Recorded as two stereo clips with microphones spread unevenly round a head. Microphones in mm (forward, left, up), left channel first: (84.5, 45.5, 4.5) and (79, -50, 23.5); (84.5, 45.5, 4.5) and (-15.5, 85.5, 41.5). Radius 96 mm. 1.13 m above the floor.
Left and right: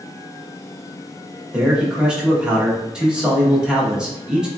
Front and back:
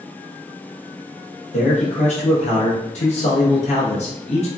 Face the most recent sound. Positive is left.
turn(degrees=-10)